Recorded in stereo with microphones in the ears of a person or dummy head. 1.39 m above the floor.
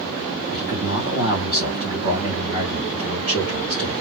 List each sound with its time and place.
0.5 s a man speaking: 35° right (ahead or behind), 2.5 m